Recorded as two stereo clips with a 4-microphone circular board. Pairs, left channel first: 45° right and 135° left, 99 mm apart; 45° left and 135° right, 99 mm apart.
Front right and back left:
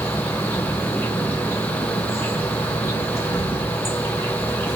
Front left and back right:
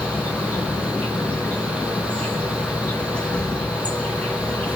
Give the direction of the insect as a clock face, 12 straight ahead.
1 o'clock.